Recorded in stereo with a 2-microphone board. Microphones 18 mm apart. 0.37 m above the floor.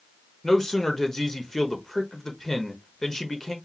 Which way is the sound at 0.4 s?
20° left (ahead or behind).